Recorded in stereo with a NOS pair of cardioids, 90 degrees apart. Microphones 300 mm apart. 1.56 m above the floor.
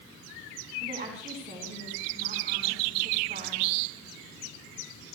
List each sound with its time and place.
0.8 s a woman speaking: 25° right, 5 m